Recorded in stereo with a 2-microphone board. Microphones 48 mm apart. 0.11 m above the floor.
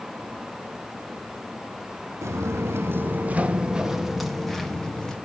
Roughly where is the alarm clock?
I don't hear an alarm clock.